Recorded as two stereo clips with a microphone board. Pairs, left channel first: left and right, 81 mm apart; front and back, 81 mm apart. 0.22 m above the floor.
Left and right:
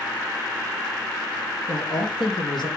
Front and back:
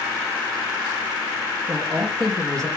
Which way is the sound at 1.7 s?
100° left.